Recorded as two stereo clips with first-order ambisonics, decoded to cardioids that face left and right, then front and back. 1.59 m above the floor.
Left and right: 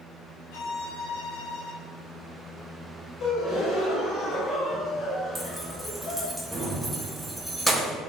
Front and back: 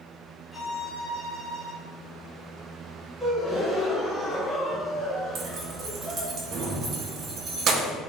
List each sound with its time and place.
0.5 s a violin: 85° left, 1.0 m
3.2 s a gasp: 105° left, 0.8 m
5.3 s keys jangling: 175° right, 0.6 m